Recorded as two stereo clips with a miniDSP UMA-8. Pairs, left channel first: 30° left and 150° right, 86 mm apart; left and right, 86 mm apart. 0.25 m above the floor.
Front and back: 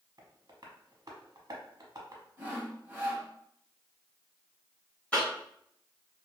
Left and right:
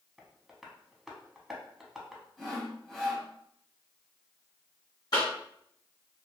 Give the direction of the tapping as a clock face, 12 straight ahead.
6 o'clock.